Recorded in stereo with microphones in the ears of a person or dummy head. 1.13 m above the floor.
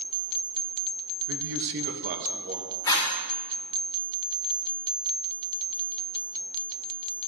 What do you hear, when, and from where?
1.3 s a man speaking: 75° right (ahead or behind), 0.7 m; by 2.8 s 35° right (ahead or behind), 1.4 m
2.9 s a zipper: 20° left (ahead or behind), 1.3 m